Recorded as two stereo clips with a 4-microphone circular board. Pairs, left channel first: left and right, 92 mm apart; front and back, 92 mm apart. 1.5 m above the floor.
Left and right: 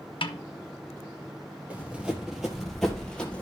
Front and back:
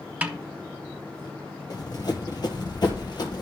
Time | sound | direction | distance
0.2 | a snare drum | 105° left | 0.9 m
1.7 | running footsteps | 20° right | 2 m